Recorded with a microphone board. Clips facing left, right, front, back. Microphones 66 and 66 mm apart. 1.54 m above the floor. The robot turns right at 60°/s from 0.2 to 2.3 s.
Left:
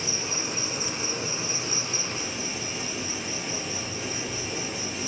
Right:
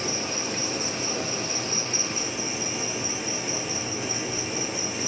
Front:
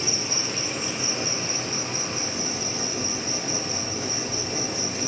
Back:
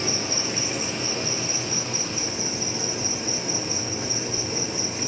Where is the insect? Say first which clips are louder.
Right 3 dB, back 2 dB; 130° right, 3.5 m; by 5.1 s 5° right, 3.5 m.